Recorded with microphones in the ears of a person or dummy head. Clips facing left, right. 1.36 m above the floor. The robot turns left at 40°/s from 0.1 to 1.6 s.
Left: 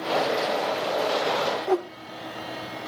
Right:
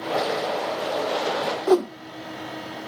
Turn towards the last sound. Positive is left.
turn(degrees=-55)  # may be behind; listen again after turning